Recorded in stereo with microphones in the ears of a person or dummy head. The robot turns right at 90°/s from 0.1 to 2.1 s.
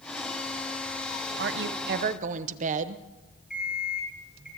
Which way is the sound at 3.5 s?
5° right (ahead or behind).